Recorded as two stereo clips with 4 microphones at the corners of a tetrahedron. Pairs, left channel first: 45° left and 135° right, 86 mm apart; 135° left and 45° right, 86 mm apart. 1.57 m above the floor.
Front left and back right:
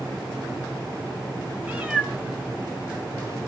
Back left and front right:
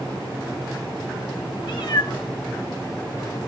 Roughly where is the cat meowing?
Behind left.